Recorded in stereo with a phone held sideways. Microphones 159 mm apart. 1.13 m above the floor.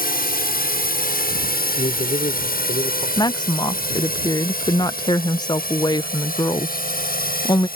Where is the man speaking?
50° left (ahead or behind).